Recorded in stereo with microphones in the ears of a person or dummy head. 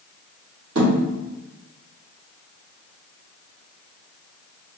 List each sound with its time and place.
0.8 s a thud: 65° right (ahead or behind), 2.0 m